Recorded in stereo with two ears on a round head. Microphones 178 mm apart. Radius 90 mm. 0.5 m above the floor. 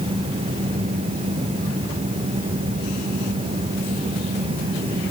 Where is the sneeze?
No sneeze in this recording.